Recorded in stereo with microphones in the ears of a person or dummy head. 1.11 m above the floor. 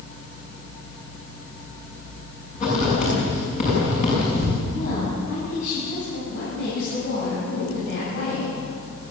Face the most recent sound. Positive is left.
turn(degrees=60)  # may be behind; listen again after turning